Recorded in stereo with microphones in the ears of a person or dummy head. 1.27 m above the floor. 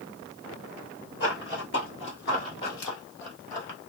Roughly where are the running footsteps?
Left.